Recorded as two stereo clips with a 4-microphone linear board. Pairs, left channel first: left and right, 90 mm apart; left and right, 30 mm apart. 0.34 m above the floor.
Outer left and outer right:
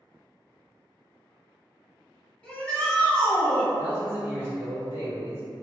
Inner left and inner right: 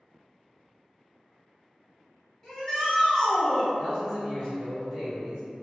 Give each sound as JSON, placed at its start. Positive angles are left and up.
{"t": 2.4, "sound": "a shout", "side_deg": 10, "distance_m": 1.3}
{"t": 3.8, "sound": "a man speaking", "side_deg": -25, "distance_m": 1.6}